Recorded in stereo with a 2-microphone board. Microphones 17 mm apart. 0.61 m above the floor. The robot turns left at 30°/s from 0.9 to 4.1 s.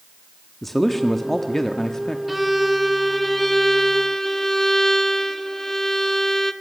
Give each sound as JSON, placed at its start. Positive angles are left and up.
{"t": 0.6, "sound": "a man speaking", "azimuth_deg": 160, "distance_m": 1.2}
{"t": 2.3, "sound": "a violin", "azimuth_deg": -175, "distance_m": 1.1}